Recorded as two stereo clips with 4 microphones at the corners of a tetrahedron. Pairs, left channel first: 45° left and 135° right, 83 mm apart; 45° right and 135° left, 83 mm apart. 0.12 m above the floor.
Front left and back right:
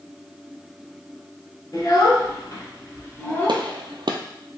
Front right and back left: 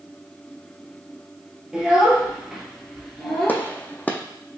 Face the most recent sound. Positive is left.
turn(degrees=-110)